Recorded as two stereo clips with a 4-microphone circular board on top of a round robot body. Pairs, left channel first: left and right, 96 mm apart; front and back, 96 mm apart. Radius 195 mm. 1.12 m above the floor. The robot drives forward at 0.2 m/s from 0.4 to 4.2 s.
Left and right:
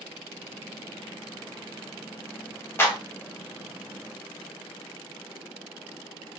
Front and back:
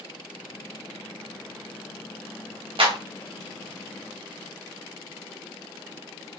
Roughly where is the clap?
Behind left.